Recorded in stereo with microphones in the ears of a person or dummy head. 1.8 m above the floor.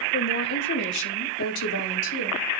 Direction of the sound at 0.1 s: 45° left (ahead or behind).